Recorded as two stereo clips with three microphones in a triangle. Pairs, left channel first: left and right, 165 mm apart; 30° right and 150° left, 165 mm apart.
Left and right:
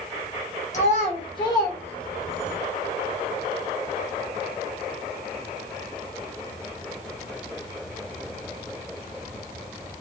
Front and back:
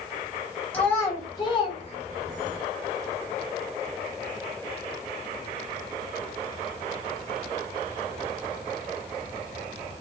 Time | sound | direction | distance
0.7 | a child speaking | 50° left | 1.3 m